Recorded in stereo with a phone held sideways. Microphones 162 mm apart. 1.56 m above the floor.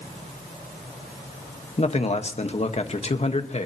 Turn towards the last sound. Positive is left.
turn(degrees=45)  # may be behind; listen again after turning